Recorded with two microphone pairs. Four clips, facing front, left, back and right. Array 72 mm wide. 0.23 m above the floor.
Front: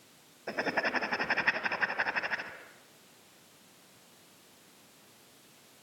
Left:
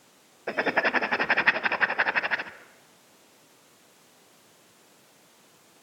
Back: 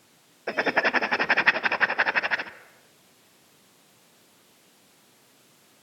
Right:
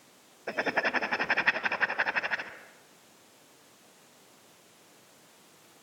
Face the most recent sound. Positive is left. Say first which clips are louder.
# left 4 dB, back 8 dB
turn(degrees=155)